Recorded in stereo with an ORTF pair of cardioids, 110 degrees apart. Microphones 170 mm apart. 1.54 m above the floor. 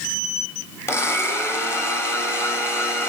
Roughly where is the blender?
Ahead.